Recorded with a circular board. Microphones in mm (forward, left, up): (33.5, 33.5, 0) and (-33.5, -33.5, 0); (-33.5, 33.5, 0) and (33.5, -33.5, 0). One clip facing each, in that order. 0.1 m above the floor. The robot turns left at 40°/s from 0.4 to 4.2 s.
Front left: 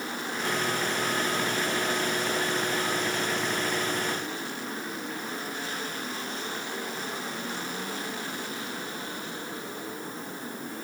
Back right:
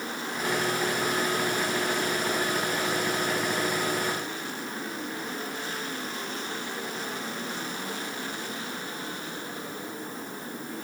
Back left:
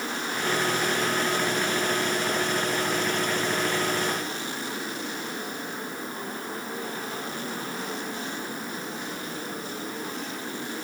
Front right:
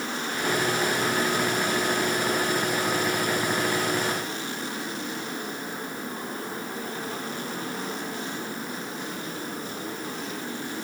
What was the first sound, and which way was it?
Only background noise.